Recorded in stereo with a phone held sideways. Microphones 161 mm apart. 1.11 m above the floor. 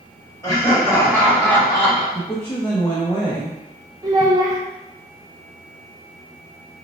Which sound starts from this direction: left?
Laughter, at 0.4 s.